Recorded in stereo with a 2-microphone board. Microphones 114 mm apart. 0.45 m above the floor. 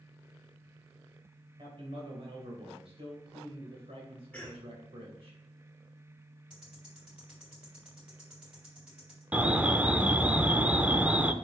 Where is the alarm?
10° right (ahead or behind), 0.5 m.